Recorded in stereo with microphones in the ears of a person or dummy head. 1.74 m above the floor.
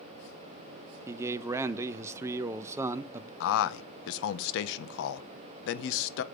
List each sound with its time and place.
1.1 s a man speaking: 20° right (ahead or behind), 0.5 m
3.4 s a man speaking: 65° left (ahead or behind), 0.6 m